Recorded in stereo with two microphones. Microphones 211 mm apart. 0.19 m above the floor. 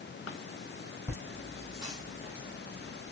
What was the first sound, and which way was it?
Laughter, 10° left (ahead or behind).